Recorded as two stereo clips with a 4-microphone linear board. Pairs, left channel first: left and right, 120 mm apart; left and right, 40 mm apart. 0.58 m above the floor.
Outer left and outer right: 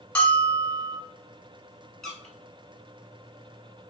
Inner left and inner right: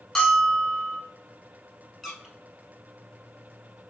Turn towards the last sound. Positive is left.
turn(degrees=0)  # may be behind; listen again after turning